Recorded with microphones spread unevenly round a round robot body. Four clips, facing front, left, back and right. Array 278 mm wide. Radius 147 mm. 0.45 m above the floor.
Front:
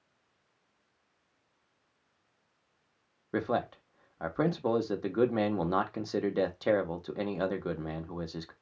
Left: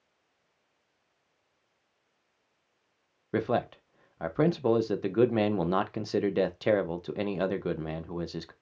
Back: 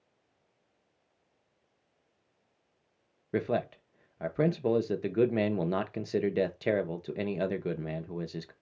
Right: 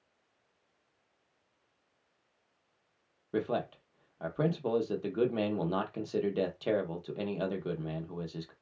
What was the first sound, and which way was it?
A man speaking, 90° left.